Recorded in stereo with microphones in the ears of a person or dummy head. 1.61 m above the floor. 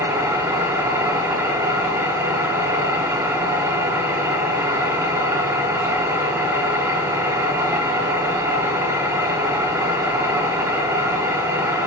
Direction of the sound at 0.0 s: 15° right (ahead or behind).